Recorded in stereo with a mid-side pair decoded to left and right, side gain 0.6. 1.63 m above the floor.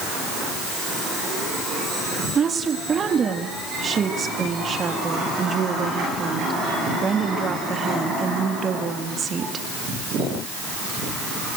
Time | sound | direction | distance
2.4 | a woman speaking | 35° right | 4 m